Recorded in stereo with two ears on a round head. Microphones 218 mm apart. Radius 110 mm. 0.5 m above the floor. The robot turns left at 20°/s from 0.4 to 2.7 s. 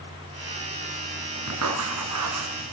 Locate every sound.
1.5 s writing: 65° right (ahead or behind), 4 m; by 2.7 s 85° right, 4 m